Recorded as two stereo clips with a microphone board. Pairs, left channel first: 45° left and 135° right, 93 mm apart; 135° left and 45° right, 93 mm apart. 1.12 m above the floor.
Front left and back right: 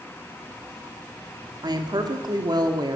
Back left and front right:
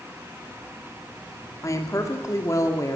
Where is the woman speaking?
170° right, 3 m.